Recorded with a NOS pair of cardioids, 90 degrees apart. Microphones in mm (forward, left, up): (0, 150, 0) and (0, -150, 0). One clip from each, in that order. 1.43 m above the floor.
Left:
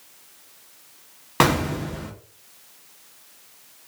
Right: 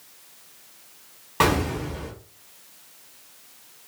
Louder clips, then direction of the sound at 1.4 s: Left 1 dB; 35° left.